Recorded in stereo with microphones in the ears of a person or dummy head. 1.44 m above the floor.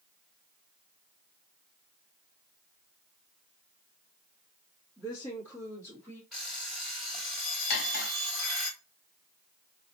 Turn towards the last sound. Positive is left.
turn(degrees=55)  # may be behind; listen again after turning